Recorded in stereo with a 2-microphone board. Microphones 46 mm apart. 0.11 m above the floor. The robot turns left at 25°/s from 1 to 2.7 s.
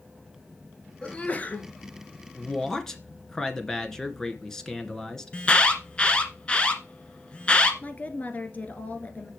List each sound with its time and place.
1.0 s a sneeze: 25° left (ahead or behind), 1.9 m; by 1.7 s 35° left (ahead or behind), 1.9 m
2.4 s a man speaking: 15° left (ahead or behind), 1.7 m; by 5.4 s 10° left (ahead or behind), 1.7 m
5.3 s an alarm: 25° left (ahead or behind), 1.7 m
7.8 s a woman speaking: 35° left (ahead or behind), 1.6 m